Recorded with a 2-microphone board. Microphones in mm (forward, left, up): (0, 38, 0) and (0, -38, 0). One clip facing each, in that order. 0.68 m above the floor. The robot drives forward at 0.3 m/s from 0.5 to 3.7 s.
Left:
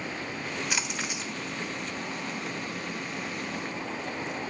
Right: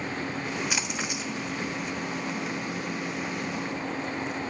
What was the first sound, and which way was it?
A splash, 5° right (ahead or behind).